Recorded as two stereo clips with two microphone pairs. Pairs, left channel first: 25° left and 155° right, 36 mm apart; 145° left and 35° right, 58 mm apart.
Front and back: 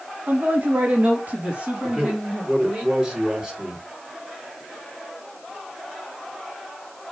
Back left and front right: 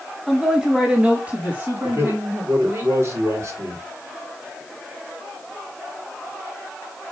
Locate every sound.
0.3 s a man speaking: 120° right, 1.9 m; by 2.8 s 85° right, 3 m
1.8 s a man speaking: 75° right, 4.5 m